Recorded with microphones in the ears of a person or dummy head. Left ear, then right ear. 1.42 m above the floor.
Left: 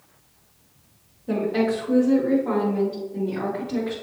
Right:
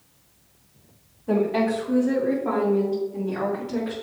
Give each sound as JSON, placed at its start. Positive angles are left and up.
{"t": 1.3, "sound": "a woman speaking", "side_deg": -35, "distance_m": 3.0}